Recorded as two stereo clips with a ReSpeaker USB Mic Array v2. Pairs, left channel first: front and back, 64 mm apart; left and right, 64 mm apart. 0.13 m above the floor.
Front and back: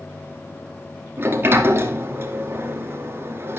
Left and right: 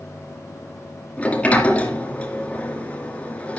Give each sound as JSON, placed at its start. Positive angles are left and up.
{"t": 1.2, "sound": "a sliding door", "azimuth_deg": 150, "distance_m": 2.5}